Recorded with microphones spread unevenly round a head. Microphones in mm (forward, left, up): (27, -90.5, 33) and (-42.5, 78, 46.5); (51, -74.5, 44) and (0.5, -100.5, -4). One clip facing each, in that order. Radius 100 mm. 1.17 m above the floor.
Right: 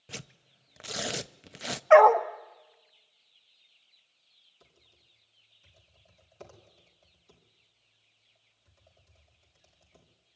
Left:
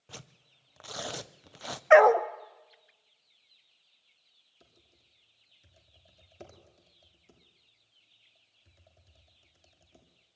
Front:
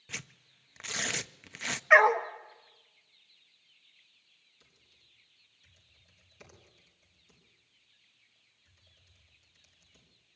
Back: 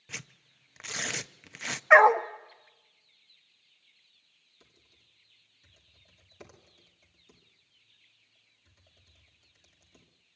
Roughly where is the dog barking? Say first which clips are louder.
Right 1 dB, back 3 dB; left.